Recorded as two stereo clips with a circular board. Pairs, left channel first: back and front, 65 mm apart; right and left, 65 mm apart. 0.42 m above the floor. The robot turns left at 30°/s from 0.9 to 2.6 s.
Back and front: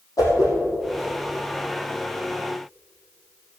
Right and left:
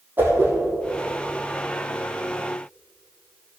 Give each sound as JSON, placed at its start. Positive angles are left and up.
{"t": 0.2, "sound": "a whoosh", "azimuth_deg": 150, "distance_m": 3.5}